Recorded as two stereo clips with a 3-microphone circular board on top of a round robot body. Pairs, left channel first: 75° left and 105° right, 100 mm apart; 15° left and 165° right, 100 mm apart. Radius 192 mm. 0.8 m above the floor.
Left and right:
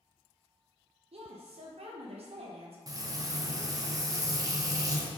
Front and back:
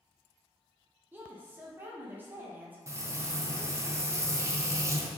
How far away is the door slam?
No door slam in this recording.